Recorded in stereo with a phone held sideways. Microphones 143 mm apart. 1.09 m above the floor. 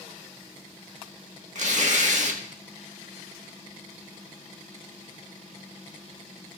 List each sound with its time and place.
1.6 s tearing paper: 60° right (ahead or behind), 1.3 m